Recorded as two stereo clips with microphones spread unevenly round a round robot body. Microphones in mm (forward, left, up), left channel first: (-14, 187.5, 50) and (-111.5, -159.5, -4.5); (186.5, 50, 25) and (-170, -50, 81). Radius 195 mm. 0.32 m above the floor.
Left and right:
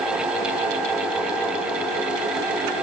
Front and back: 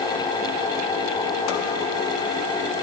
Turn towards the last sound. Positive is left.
No sound to turn to.